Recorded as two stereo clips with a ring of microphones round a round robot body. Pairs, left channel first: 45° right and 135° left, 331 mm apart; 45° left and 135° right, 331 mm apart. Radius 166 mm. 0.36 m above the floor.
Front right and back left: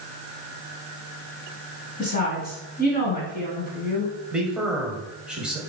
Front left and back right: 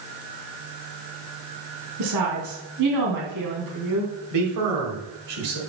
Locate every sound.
2.0 s a woman speaking: 110° right, 3 m
4.3 s a man speaking: 140° right, 1.8 m